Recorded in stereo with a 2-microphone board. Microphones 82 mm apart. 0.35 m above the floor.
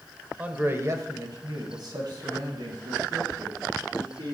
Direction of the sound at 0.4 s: 20° right (ahead or behind).